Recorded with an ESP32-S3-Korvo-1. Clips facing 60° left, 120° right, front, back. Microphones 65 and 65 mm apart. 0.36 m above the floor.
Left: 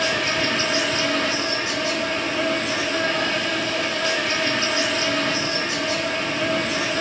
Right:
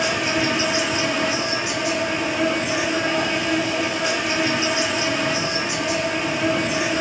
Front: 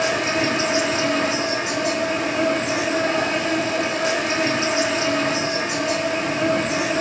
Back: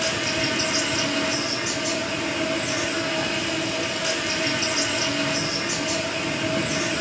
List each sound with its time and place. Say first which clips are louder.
0.0 s an insect: right 1 dB, front 5 dB; 45° right, 0.9 m